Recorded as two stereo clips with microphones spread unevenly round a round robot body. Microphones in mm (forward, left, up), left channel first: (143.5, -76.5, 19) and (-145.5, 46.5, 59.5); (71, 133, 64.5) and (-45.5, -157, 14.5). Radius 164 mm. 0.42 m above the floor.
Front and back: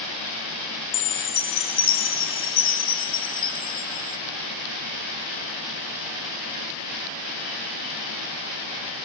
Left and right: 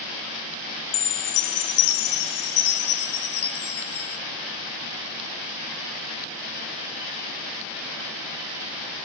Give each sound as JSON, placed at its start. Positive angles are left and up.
{"t": 0.9, "sound": "a chime", "azimuth_deg": 35, "distance_m": 0.8}